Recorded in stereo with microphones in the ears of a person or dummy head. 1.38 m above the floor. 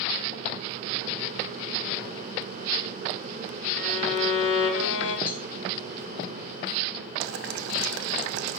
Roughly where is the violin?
Left.